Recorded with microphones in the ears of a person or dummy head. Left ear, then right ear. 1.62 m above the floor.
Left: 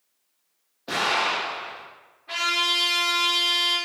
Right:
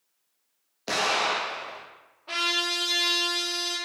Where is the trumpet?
60° right (ahead or behind), 1.6 m.